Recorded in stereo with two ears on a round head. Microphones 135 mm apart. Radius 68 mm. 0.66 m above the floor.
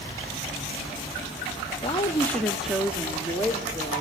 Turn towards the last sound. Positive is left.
turn(degrees=-20)  # may be behind; listen again after turning